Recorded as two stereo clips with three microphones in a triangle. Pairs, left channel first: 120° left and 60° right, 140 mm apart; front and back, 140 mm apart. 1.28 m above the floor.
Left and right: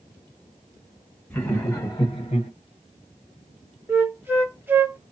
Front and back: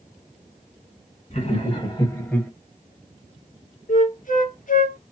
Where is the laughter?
45° left, 1.5 m; by 2.5 s 85° left, 0.8 m.